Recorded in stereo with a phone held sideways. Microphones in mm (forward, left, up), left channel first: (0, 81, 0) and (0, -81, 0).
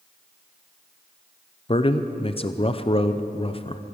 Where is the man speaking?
35° left (ahead or behind), 0.6 m.